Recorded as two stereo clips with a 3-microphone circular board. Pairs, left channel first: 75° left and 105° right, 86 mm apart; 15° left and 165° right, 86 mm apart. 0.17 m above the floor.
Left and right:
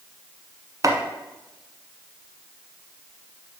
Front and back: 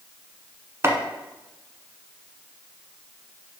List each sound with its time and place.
0.8 s chopping: 120° right, 1.0 m